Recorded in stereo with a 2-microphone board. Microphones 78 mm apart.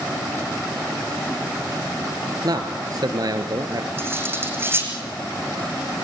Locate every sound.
2.4 s a man speaking: 55° right (ahead or behind), 2 m
4.0 s cutlery clinking: 30° right (ahead or behind), 4.5 m